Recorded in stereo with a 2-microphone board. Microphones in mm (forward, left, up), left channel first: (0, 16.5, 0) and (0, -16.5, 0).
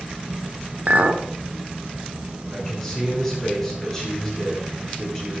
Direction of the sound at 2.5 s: 10° left (ahead or behind).